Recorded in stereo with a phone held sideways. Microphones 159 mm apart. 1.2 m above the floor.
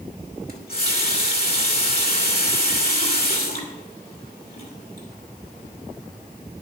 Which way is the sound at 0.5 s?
70° left (ahead or behind).